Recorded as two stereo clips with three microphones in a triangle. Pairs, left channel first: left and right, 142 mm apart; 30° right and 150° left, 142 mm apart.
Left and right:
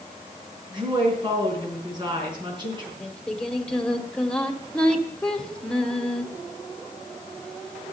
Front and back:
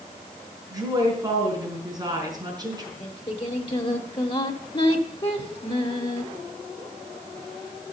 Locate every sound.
0.7 s a woman speaking: 145° right, 4.5 m
3.0 s singing: 5° left, 1.3 m